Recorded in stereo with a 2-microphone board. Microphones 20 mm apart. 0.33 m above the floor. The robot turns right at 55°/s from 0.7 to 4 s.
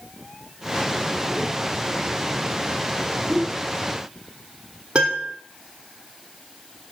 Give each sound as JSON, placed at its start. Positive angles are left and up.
{"t": 3.3, "sound": "a whoosh", "side_deg": -15, "distance_m": 3.0}
{"t": 5.0, "sound": "a piano", "side_deg": -65, "distance_m": 3.5}